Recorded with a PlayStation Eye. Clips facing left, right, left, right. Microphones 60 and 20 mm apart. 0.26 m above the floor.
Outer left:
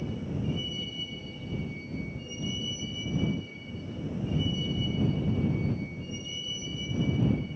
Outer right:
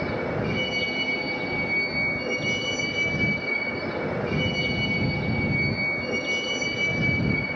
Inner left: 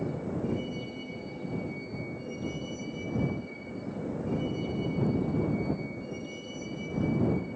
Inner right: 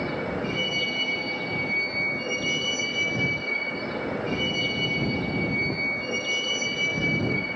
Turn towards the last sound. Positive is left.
turn(degrees=-75)  # may be behind; listen again after turning